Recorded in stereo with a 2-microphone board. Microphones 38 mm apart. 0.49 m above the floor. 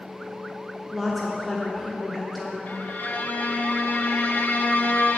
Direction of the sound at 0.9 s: Centre (ahead or behind).